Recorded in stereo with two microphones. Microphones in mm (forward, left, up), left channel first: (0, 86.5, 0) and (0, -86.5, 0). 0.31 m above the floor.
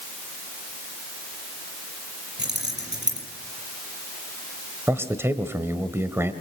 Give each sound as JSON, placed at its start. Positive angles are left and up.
{"t": 2.4, "sound": "keys jangling", "side_deg": -80, "distance_m": 5.5}
{"t": 4.9, "sound": "a man speaking", "side_deg": -15, "distance_m": 1.4}